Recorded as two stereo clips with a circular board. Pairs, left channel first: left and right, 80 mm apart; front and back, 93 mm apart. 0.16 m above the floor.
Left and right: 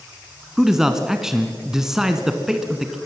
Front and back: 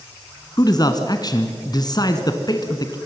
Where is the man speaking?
10° right, 1.5 m.